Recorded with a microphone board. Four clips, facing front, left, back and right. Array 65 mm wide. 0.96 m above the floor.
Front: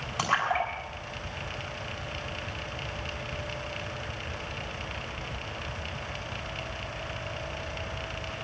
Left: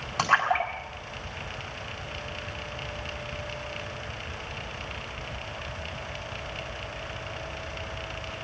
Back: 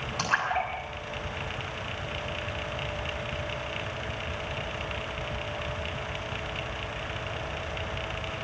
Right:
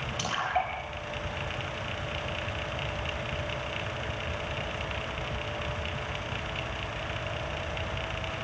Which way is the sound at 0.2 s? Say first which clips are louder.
Left 7 dB, front 1 dB; 80° left.